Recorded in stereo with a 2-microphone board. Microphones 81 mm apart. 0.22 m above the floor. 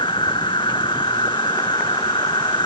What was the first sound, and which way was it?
An insect, 75° left (ahead or behind).